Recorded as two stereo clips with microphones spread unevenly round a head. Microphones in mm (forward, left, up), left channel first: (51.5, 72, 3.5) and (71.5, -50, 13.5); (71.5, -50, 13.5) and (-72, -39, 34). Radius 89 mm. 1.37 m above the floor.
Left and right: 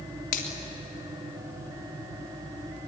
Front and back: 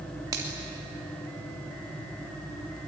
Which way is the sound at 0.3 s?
105° left.